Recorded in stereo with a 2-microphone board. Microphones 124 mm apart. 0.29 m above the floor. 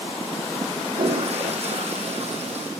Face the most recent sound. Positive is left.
turn(degrees=-60)  # may be behind; listen again after turning